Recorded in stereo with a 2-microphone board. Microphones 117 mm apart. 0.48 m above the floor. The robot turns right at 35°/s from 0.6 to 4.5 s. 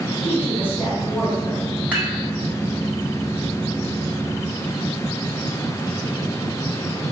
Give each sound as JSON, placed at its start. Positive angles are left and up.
{"t": 0.2, "sound": "a woman speaking", "azimuth_deg": -15, "distance_m": 1.6}
{"t": 1.9, "sound": "dishes clattering", "side_deg": -15, "distance_m": 1.4}